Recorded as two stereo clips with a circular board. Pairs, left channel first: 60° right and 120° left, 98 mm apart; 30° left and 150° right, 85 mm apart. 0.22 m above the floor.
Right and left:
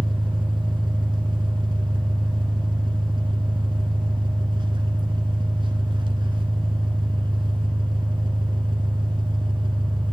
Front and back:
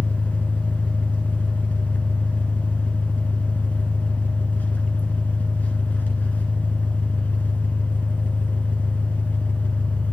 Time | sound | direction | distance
0.0 | an engine running | 95° left | 1.0 m